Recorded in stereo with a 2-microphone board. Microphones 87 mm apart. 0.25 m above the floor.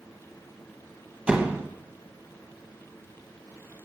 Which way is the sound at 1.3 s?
15° right (ahead or behind).